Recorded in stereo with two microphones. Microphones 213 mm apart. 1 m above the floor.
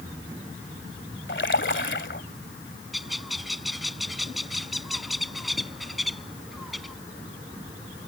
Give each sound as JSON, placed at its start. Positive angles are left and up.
{"t": 1.3, "sound": "a splash", "side_deg": 60}
{"t": 2.9, "sound": "a bird", "side_deg": 0}